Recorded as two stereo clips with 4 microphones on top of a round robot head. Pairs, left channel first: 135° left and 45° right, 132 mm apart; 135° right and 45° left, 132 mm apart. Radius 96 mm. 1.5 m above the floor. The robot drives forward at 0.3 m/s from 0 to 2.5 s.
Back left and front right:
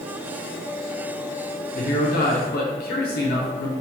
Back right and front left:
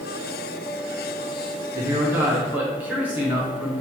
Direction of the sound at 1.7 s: 110° left.